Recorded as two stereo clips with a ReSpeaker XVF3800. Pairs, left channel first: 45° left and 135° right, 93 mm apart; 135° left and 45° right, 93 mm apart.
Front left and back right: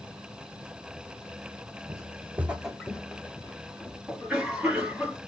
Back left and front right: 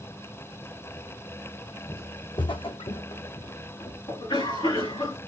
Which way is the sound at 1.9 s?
Straight behind.